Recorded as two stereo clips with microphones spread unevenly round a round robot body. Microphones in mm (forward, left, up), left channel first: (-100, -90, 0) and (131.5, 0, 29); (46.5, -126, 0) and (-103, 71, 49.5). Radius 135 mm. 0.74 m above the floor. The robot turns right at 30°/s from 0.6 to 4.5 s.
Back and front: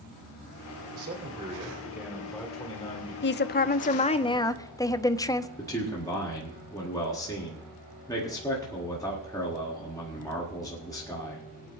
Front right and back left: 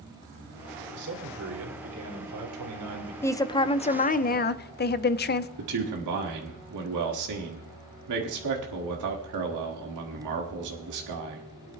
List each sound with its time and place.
0.9 s a man speaking: 75° left, 2.5 m; by 3.1 s 140° left, 2.5 m
3.2 s a woman speaking: 125° right, 0.7 m; by 5.5 s 85° right, 0.7 m
5.6 s a man speaking: 125° left, 1.7 m